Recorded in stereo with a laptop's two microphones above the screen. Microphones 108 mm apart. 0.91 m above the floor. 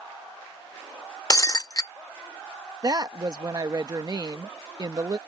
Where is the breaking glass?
35° left (ahead or behind).